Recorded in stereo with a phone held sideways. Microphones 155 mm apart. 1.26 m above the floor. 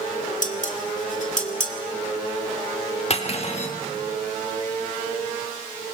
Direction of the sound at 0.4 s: 60° left (ahead or behind).